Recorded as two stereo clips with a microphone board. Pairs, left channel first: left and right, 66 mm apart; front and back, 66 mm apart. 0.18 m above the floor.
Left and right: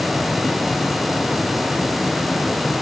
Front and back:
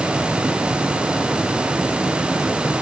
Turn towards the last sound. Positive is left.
No sound to turn to.